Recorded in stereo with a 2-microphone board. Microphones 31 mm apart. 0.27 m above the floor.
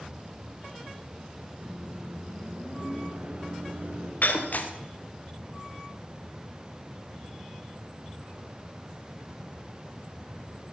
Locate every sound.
1.6 s a microwave: 65° right (ahead or behind), 3.5 m
4.2 s breaking glass: 70° left (ahead or behind), 2.5 m